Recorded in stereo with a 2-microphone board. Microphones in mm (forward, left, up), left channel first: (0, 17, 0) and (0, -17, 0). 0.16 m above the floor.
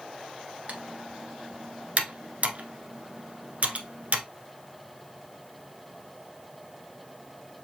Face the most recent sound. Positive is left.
turn(degrees=-55)  # may be behind; listen again after turning